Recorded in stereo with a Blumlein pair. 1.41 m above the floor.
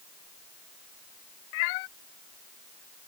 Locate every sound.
1.5 s a cat meowing: 45° left